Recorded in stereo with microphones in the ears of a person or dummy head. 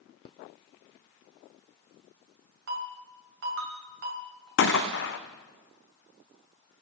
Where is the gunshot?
55° left (ahead or behind), 0.6 m.